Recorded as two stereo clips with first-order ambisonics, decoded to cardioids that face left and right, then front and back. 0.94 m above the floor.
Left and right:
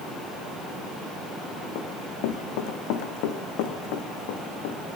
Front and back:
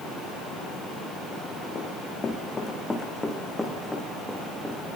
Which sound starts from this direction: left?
Running footsteps, at 1.8 s.